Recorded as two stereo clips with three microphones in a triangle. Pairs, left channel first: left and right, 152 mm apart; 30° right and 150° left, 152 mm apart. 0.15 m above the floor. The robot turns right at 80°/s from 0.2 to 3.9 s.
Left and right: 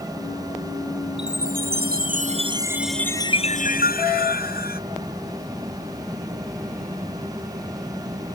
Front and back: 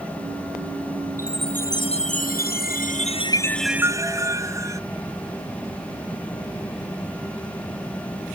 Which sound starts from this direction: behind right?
A chime, at 1.2 s.